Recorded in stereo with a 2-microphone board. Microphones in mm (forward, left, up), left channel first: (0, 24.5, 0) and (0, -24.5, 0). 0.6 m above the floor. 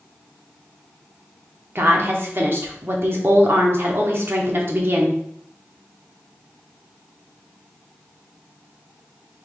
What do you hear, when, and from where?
1.8 s a woman speaking: 50° right (ahead or behind), 1.0 m